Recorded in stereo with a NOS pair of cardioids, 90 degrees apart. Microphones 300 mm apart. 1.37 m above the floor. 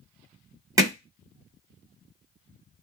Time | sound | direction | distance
0.8 | hammering | 10° right | 1.0 m